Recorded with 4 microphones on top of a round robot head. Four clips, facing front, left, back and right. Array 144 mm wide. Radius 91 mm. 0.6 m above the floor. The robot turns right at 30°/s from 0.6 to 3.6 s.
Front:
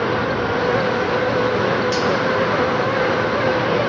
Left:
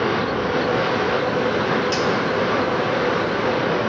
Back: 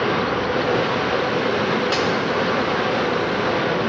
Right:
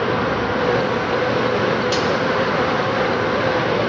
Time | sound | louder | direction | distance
1.9 | cutlery clinking | right 1 dB, front 2 dB | 155° right | 1.3 m